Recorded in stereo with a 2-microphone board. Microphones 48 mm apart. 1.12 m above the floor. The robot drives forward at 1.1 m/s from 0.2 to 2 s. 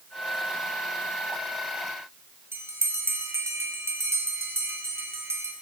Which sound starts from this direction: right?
A bell, at 2.5 s.